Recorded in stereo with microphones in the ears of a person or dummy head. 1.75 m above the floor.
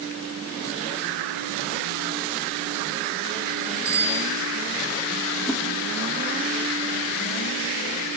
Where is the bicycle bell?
35° right (ahead or behind), 6 m.